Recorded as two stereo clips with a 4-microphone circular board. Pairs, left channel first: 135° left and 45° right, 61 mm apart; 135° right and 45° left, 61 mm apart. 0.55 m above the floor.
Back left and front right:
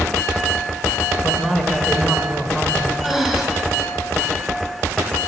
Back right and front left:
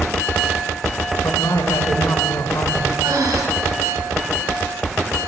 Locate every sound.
1.2 s a man speaking: 135° right, 1.9 m
3.0 s breathing: 40° left, 2.5 m